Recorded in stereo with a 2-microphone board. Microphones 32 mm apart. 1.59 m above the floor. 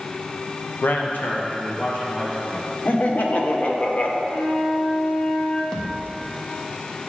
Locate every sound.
0.8 s a man speaking: 65° left (ahead or behind), 0.6 m
2.9 s laughter: 50° left (ahead or behind), 0.8 m
4.3 s a flute: 35° left (ahead or behind), 1.6 m
5.7 s a thud: 20° left (ahead or behind), 1.1 m